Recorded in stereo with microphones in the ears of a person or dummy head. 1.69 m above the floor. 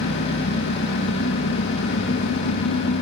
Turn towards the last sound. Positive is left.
turn(degrees=65)  # may be behind; listen again after turning